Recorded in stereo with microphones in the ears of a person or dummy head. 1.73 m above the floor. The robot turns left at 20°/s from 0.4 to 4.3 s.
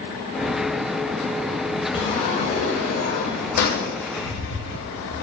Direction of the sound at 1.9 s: 150° left.